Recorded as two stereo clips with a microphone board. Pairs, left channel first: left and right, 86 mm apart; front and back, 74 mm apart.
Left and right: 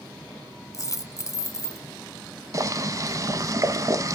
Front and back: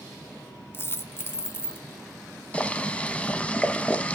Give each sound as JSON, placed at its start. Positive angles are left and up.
{"t": 0.7, "sound": "a dropped coin", "azimuth_deg": 50, "distance_m": 1.0}
{"t": 2.5, "sound": "boiling", "azimuth_deg": -65, "distance_m": 0.7}